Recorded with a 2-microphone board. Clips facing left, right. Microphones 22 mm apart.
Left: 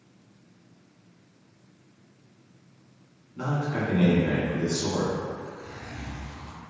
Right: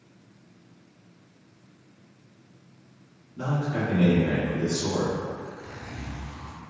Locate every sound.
3.4 s a man speaking: 40° left (ahead or behind), 1.5 m
5.4 s a zipper: 20° right (ahead or behind), 1.2 m